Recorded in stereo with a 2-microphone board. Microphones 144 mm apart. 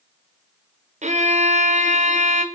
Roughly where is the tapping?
I don't hear tapping.